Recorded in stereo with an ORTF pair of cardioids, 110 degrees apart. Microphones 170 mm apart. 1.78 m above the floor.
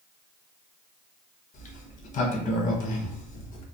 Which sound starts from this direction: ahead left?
A sliding door, at 1.5 s.